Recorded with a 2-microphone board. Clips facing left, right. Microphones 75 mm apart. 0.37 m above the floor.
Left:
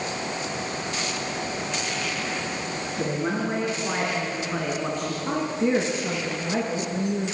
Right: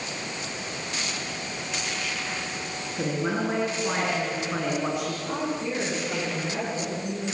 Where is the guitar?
No guitar in this recording.